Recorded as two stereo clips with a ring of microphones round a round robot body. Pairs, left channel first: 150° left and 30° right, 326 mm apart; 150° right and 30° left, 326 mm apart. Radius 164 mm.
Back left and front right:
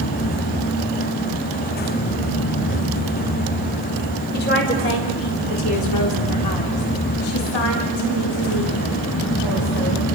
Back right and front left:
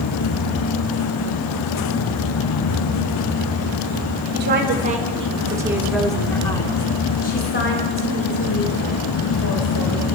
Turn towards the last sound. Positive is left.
turn(degrees=180)